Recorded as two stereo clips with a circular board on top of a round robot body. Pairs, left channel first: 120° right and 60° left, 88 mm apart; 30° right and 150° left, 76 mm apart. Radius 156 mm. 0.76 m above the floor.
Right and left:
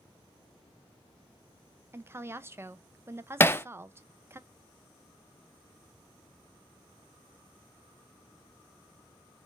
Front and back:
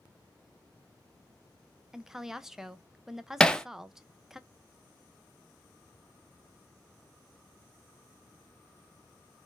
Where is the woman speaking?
70° left, 0.6 m.